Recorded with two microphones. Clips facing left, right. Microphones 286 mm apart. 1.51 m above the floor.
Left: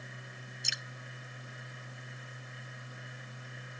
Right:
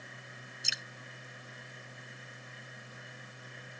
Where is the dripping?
Centre (ahead or behind).